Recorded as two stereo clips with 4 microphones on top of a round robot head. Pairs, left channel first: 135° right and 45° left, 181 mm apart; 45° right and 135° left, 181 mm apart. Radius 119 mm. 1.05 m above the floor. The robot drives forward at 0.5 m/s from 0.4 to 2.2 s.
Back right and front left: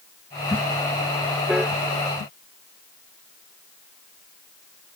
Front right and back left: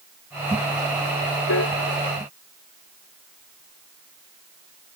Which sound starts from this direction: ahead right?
A piano, at 1.5 s.